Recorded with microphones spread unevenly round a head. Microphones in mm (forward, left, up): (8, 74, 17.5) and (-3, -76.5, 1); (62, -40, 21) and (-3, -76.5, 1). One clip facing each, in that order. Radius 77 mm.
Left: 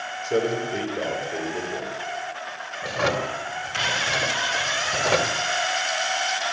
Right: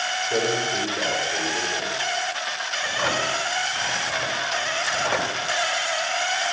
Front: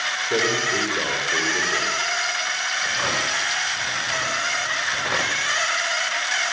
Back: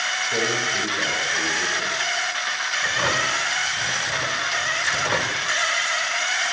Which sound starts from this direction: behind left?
A drawer, at 2.8 s.